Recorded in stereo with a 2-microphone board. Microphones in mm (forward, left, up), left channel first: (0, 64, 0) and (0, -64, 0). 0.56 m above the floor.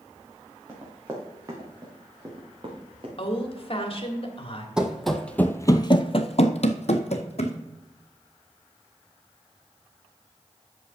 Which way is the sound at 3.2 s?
45° left (ahead or behind).